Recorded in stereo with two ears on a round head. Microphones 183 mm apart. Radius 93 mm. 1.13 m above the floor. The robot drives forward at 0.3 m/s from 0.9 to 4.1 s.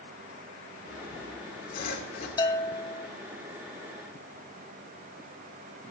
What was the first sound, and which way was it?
Sawing, 40° left (ahead or behind).